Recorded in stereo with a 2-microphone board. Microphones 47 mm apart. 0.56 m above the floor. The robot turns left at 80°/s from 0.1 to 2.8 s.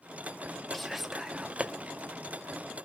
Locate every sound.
0.7 s whispering: 5° left (ahead or behind), 0.6 m; by 1.7 s 20° right (ahead or behind), 0.6 m